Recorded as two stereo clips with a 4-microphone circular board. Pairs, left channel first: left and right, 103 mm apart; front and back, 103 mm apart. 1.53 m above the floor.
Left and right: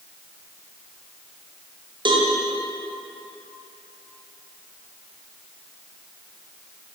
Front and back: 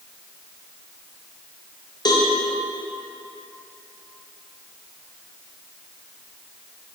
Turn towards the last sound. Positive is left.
turn(degrees=-50)